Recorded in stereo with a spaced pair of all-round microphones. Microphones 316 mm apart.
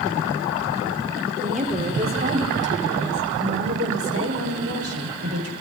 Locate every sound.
1.4 s a woman speaking: 25° right (ahead or behind), 5 m; by 5.5 s 55° right (ahead or behind), 7 m